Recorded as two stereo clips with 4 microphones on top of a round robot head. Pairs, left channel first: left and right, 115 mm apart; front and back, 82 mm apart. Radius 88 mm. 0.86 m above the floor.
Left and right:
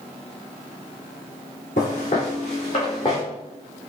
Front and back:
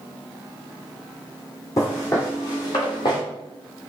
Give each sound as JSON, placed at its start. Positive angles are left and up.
{"t": 1.8, "sound": "footsteps", "azimuth_deg": 50, "distance_m": 2.0}